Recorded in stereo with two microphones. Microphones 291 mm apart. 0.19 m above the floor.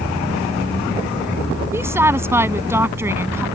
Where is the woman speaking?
10° right (ahead or behind).